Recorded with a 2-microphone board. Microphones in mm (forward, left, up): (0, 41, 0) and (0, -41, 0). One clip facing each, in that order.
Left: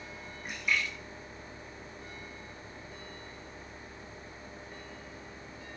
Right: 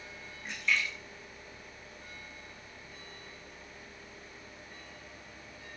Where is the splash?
10° left (ahead or behind), 9.5 m.